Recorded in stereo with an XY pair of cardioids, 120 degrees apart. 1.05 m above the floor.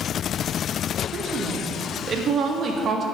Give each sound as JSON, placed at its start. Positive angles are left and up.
{"t": 1.1, "sound": "a woman speaking", "azimuth_deg": -40, "distance_m": 1.5}